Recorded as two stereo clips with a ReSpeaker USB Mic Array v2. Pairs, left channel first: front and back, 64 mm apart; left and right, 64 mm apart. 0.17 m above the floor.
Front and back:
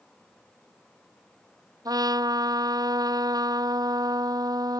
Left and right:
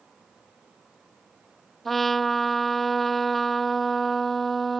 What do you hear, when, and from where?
1.9 s a trumpet: straight behind